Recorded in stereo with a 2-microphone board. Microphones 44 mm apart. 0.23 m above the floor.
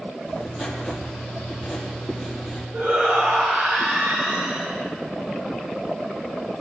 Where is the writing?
5° right (ahead or behind), 5.5 m.